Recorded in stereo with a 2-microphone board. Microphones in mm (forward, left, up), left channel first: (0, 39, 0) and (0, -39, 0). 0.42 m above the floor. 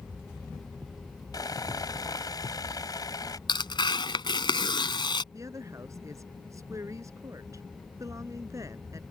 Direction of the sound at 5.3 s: 40° right (ahead or behind).